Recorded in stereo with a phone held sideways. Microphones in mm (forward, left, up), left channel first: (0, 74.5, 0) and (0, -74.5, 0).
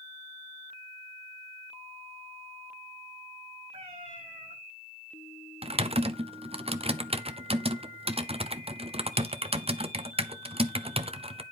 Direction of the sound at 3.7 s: 45° right (ahead or behind).